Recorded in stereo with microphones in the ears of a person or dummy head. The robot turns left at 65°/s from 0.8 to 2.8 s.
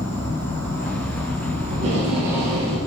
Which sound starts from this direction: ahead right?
Tape being pulled, at 1.7 s.